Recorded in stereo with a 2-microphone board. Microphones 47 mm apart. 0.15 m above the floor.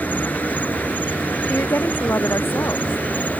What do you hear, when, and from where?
0.0 s an insect: 35° left (ahead or behind)
1.5 s a woman speaking: 60° left (ahead or behind)